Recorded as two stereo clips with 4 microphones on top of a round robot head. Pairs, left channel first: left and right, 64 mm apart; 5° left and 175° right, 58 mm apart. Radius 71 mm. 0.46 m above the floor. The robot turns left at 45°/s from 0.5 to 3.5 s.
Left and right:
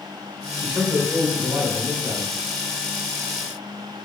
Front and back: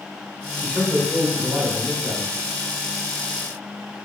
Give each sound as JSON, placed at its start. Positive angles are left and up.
{"t": 0.6, "sound": "a man speaking", "azimuth_deg": -100, "distance_m": 1.3}